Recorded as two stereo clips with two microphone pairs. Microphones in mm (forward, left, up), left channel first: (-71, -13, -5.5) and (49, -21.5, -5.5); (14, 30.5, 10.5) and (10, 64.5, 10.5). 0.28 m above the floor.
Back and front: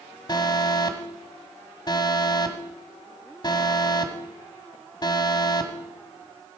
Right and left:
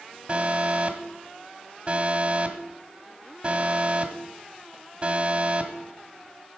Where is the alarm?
135° left, 1.5 m.